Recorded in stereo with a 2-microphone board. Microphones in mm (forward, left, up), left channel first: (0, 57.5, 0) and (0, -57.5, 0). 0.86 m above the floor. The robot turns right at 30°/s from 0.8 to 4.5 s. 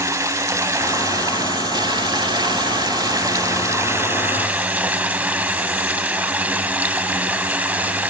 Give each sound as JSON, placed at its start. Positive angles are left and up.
{"t": 0.0, "sound": "running water", "azimuth_deg": -135, "distance_m": 0.8}